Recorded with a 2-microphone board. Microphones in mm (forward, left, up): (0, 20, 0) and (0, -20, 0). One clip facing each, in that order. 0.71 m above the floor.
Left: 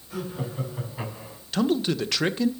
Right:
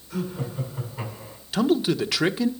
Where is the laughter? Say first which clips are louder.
Right 2 dB; 15° left (ahead or behind), 5.5 m; by 1.4 s 10° left (ahead or behind), 5 m.